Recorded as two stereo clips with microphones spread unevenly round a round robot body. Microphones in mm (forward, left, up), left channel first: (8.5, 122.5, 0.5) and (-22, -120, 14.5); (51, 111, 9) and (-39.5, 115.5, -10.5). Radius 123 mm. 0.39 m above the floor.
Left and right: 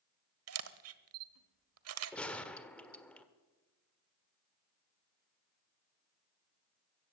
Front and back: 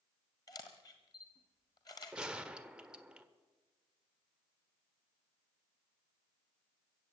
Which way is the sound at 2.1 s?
155° left.